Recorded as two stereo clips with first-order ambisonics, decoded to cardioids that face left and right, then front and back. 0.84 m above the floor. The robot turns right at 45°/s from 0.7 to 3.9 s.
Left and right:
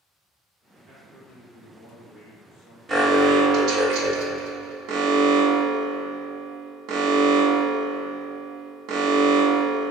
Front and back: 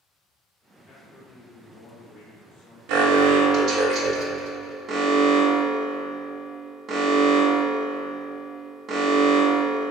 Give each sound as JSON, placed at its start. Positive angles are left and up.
{"t": 0.9, "sound": "a man speaking", "azimuth_deg": -60, "distance_m": 0.8}
{"t": 2.9, "sound": "an alarm", "azimuth_deg": -160, "distance_m": 0.5}